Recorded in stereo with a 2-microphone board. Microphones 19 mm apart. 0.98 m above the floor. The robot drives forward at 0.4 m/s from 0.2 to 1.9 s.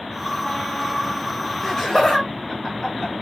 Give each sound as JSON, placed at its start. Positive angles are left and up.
{"t": 1.6, "sound": "laughter", "side_deg": 25, "distance_m": 1.4}